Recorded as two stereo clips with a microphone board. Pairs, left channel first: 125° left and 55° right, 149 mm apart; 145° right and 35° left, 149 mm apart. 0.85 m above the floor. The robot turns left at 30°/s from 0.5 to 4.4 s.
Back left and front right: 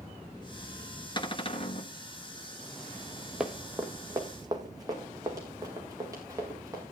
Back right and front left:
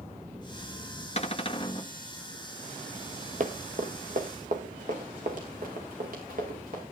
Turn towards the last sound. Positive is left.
turn(degrees=10)